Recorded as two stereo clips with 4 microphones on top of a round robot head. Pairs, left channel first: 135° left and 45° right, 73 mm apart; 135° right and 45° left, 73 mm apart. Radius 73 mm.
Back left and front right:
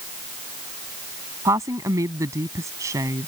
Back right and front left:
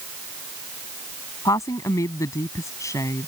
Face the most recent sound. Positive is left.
turn(degrees=-90)